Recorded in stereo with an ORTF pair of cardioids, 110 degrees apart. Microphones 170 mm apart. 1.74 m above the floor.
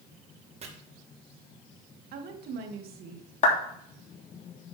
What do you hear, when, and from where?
0.6 s chopping: 40° right, 2 m
2.1 s a woman speaking: 65° right, 2.5 m
3.4 s a clap: 45° left, 3 m